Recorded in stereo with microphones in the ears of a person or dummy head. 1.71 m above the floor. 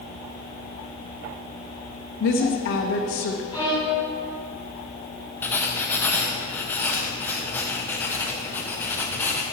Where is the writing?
10° left (ahead or behind), 0.8 m.